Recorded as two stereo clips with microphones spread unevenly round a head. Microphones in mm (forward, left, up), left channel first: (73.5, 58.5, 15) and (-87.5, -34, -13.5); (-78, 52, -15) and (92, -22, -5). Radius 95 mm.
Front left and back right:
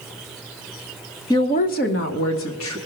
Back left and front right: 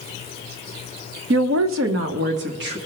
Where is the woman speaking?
45° right, 0.8 m; by 2.8 s 10° left, 2 m.